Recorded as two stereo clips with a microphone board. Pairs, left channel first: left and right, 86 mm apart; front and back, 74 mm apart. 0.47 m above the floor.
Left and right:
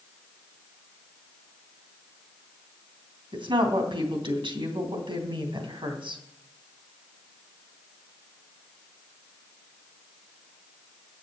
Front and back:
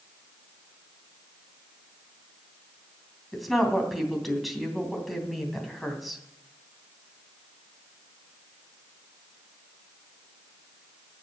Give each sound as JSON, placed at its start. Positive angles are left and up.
{"t": 3.3, "sound": "a woman speaking", "azimuth_deg": -90, "distance_m": 3.0}